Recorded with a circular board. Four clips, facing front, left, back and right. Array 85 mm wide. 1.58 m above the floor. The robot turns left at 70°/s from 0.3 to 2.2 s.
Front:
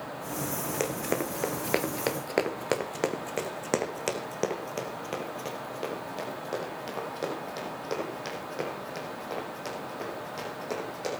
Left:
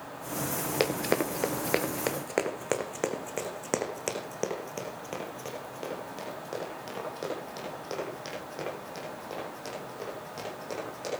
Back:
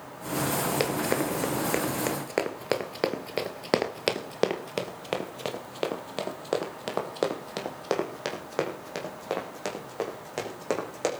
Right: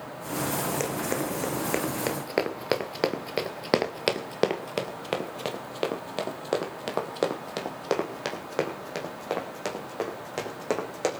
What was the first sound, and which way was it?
Running footsteps, 130° left.